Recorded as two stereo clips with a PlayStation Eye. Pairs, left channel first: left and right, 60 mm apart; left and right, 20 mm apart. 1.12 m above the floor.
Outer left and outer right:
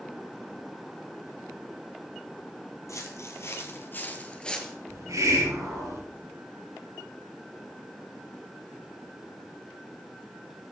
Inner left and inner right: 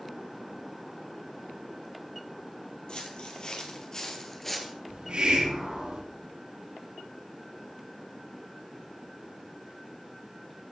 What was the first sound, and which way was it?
Footsteps, 55° left (ahead or behind).